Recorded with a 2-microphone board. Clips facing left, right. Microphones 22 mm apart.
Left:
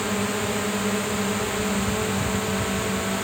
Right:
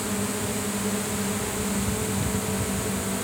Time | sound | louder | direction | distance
0.0 | a drone | left 3 dB | 25° left (ahead or behind) | ?